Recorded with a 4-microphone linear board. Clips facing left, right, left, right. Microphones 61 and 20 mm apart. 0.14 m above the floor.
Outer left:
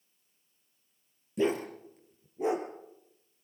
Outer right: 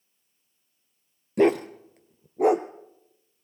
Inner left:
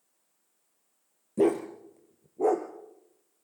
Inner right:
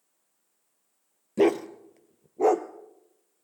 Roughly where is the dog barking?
Right.